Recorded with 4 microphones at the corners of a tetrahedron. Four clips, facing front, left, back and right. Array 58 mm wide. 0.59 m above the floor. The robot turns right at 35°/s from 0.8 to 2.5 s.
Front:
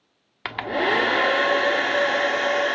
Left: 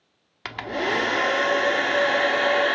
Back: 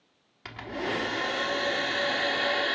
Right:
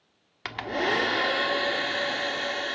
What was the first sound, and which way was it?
A hair dryer, straight ahead.